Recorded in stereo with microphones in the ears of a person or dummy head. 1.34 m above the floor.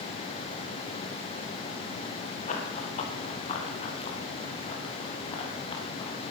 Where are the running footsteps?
40° left (ahead or behind), 6.5 m; by 6.2 s 30° left (ahead or behind), 8.5 m.